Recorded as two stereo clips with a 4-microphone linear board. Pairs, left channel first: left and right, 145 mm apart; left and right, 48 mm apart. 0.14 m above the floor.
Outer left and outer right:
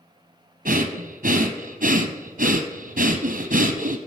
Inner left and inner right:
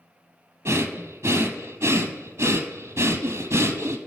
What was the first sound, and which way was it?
Breathing, 70° right (ahead or behind).